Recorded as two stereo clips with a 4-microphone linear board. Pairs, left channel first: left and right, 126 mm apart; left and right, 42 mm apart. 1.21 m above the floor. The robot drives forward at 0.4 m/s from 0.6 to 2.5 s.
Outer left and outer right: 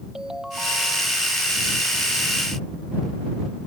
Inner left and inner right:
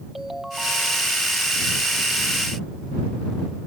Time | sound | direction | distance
0.1 | a ringtone | 5° right (ahead or behind) | ?